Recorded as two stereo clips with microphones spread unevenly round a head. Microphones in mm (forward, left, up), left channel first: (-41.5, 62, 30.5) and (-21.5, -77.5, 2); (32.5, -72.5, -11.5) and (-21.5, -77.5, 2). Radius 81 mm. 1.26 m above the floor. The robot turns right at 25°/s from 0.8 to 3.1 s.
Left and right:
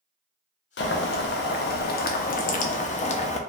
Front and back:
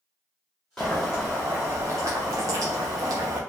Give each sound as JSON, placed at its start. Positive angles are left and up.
{"t": 0.8, "sound": "boiling", "azimuth_deg": 85, "distance_m": 0.6}